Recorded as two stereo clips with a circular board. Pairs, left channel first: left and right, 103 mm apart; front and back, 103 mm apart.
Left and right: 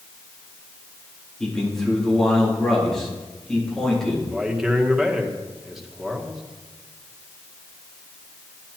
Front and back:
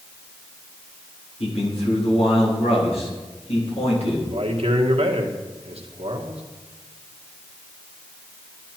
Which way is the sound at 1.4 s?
5° left.